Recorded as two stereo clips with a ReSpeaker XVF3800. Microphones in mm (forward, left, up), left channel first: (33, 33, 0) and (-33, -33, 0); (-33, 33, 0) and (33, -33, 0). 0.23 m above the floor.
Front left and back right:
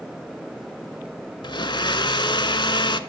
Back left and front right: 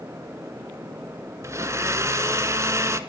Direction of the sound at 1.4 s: 15° left.